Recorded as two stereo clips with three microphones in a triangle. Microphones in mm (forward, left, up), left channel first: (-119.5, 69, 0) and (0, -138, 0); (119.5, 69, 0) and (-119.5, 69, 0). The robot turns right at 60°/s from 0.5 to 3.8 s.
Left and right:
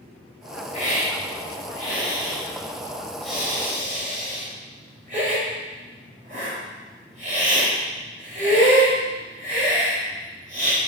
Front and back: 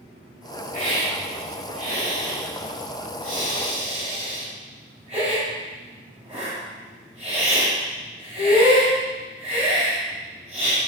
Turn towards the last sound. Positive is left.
turn(degrees=-120)